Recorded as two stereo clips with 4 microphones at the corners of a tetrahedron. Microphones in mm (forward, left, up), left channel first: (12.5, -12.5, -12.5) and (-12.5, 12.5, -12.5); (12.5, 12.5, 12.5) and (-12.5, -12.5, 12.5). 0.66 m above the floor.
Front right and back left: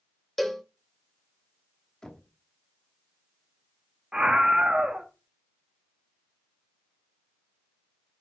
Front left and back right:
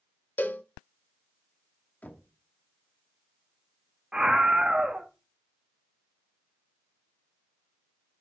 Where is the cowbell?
45° left, 0.5 m.